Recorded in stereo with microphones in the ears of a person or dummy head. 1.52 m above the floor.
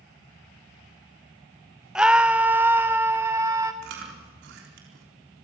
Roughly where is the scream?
Centre.